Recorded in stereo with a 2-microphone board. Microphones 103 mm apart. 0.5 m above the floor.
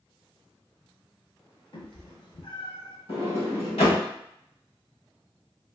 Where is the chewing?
No chewing in this recording.